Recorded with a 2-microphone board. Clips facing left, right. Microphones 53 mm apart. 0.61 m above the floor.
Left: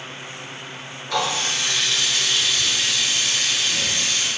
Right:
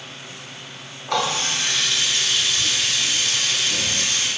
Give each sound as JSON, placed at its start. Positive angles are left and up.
{"t": 1.1, "sound": "a running tap", "side_deg": -50, "distance_m": 1.2}